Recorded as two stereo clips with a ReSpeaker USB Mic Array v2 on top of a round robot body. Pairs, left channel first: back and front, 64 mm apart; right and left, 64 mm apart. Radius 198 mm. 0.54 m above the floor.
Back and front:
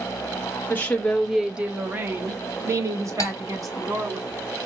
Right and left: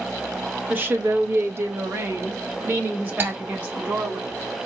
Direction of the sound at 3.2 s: 145° left.